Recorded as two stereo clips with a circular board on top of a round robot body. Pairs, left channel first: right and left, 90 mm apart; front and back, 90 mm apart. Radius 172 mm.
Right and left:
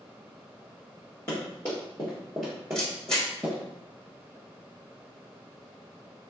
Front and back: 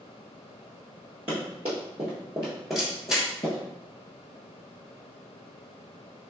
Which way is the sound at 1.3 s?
150° right.